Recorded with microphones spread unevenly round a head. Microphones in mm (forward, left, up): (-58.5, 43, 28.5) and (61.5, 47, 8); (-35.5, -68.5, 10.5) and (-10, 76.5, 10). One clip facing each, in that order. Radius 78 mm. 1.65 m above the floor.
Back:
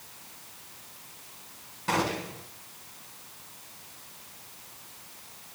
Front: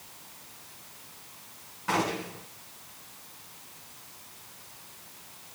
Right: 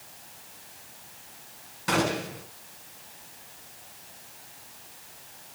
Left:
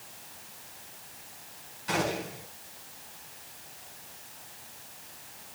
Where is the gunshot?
110° right, 6.5 m.